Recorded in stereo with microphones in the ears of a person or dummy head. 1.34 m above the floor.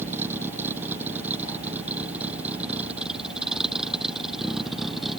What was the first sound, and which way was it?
A vehicle, 5° right (ahead or behind).